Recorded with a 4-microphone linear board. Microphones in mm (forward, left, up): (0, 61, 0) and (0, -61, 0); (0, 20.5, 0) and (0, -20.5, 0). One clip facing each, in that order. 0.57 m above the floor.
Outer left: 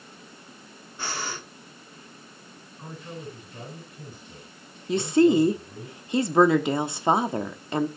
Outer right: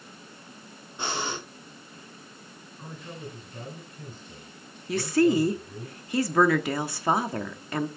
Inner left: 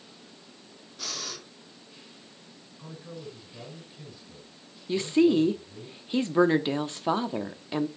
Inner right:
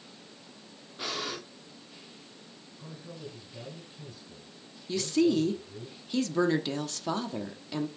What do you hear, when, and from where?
1.0 s breathing: 20° right (ahead or behind), 1.4 m
2.8 s a man speaking: 10° left (ahead or behind), 5.5 m
4.9 s a woman speaking: 20° left (ahead or behind), 0.9 m